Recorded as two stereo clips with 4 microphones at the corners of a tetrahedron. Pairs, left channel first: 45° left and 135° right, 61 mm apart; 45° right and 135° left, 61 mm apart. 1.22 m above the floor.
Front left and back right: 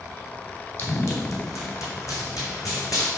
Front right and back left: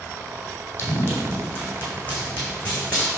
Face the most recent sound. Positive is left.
turn(degrees=25)